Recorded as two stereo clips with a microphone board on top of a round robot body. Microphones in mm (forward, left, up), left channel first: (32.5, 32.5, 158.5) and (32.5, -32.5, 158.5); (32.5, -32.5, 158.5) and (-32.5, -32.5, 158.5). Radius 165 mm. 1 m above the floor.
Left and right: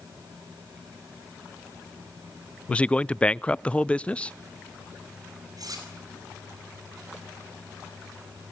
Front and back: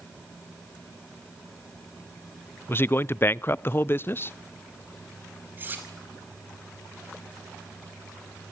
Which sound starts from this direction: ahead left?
A man speaking, at 2.7 s.